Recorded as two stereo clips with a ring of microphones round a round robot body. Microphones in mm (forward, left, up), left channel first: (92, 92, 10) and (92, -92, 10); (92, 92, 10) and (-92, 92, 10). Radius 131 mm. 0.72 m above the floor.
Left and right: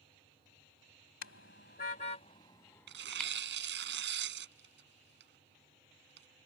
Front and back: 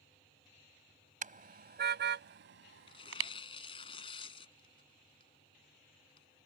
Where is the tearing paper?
70° right.